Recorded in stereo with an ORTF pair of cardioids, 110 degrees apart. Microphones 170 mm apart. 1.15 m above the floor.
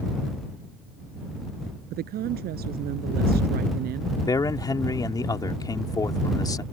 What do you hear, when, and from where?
1.9 s a woman speaking: 65° right
4.2 s a man speaking: 25° left